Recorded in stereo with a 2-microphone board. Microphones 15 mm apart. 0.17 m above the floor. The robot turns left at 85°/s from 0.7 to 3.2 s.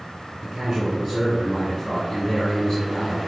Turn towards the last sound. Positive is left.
turn(degrees=35)